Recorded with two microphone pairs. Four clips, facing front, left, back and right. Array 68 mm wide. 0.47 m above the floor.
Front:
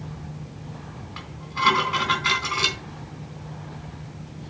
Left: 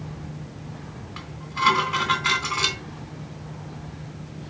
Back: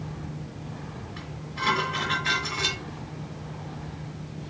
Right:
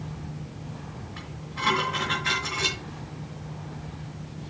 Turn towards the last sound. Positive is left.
turn(degrees=50)